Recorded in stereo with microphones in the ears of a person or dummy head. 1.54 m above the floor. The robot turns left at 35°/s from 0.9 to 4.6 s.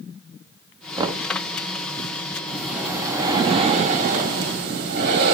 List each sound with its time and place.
1.0 s knocking: 20° right (ahead or behind), 0.6 m; by 1.3 s 30° right (ahead or behind), 0.6 m
2.5 s breathing: 10° left, 1.9 m; by 5.3 s 65° right, 1.9 m